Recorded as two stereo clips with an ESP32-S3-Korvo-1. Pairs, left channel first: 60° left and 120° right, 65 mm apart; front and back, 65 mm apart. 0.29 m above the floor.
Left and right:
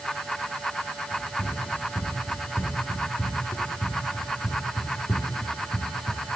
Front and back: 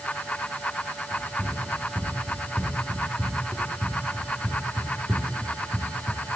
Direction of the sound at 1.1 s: 115° left.